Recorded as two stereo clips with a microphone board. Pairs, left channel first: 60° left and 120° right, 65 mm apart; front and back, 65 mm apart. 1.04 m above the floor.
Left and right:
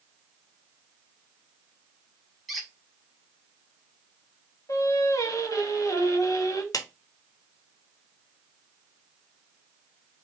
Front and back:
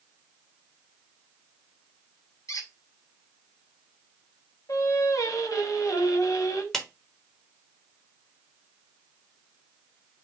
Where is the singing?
30° left, 1.3 m.